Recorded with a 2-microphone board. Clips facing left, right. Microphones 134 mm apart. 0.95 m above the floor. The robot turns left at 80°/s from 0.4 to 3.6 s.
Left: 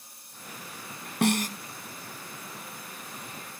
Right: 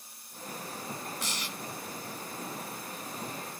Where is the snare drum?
65° left (ahead or behind); by 1.6 s 35° left (ahead or behind).